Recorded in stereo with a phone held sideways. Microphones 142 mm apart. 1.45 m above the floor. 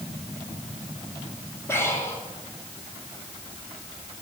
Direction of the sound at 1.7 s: 20° left (ahead or behind).